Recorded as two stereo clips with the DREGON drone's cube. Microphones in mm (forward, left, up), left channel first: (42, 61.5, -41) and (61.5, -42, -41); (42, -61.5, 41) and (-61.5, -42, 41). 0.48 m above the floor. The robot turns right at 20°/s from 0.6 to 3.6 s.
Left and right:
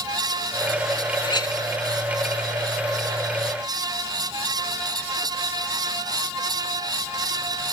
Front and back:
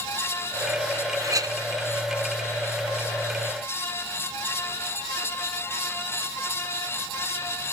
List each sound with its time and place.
1.2 s a clink: 125° left, 0.7 m; by 1.6 s 130° left, 0.7 m